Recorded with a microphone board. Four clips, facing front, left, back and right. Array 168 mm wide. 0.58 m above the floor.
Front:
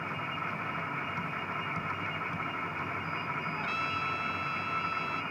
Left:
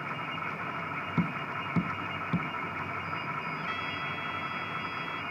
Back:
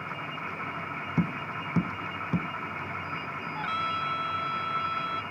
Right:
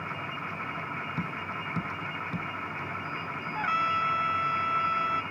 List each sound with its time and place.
1.2 s tapping: 155° left
3.5 s a trumpet: 115° right